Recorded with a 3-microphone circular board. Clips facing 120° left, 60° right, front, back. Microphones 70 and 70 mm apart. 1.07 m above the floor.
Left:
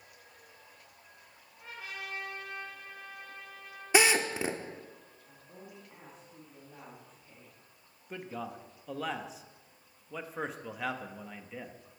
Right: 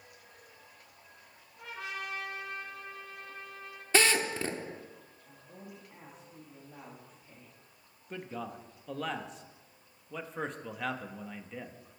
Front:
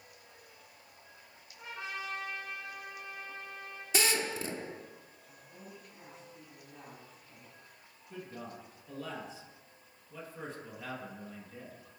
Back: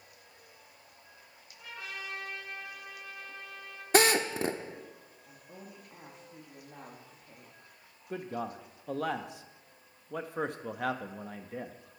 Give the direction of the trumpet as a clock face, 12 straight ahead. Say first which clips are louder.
Right 3 dB, front 2 dB; 2 o'clock.